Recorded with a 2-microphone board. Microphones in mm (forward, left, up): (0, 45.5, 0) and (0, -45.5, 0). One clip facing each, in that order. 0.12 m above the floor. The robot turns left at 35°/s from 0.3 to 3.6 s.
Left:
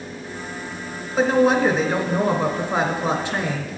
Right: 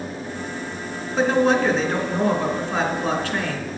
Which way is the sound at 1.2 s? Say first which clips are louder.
Left 1 dB; 5° left (ahead or behind).